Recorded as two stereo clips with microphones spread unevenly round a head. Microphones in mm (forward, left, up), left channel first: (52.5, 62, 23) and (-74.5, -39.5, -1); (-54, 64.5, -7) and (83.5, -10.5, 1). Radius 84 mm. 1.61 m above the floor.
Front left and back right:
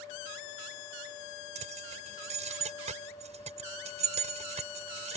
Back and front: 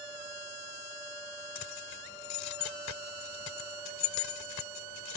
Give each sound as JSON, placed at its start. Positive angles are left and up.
{"t": 1.6, "sound": "keys jangling", "azimuth_deg": 165}